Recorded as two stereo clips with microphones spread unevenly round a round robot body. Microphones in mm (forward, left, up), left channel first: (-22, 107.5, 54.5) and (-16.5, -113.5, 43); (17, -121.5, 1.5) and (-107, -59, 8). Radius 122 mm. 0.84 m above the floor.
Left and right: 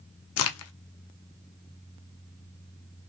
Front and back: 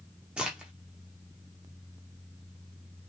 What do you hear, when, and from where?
0.4 s a crack: 65° left, 0.6 m